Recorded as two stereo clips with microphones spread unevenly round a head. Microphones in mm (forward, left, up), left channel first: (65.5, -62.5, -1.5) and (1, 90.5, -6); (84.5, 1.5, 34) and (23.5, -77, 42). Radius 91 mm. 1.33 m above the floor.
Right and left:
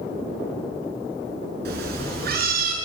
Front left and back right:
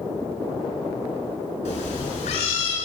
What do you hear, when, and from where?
1.6 s a cat meowing: 90° left, 7 m; by 2.8 s 80° left, 8 m